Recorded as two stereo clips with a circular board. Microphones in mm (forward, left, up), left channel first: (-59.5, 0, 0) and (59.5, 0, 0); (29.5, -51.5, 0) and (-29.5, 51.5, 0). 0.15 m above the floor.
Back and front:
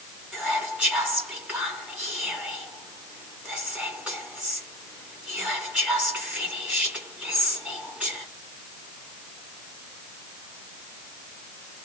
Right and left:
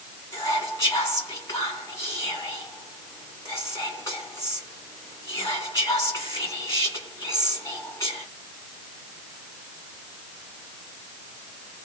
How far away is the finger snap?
No finger snap in this recording.